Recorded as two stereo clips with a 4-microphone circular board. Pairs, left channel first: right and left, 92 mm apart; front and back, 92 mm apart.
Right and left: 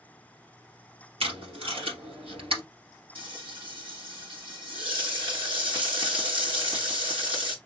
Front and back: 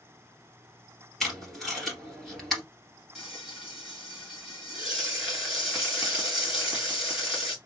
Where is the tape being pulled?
90° left, 2.5 m.